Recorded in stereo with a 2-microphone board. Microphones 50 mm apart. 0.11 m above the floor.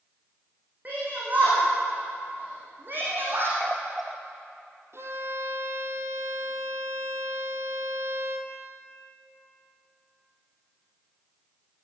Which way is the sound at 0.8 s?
35° right (ahead or behind).